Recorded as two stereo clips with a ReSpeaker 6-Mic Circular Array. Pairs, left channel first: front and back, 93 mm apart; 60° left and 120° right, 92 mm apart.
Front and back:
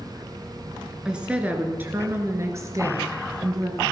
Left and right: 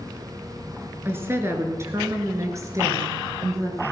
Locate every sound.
1.1 s a woman speaking: 110° right, 1.7 m; by 3.8 s 160° right, 2.5 m